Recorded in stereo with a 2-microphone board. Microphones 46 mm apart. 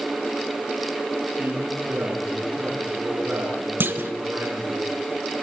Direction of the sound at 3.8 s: 45° right (ahead or behind).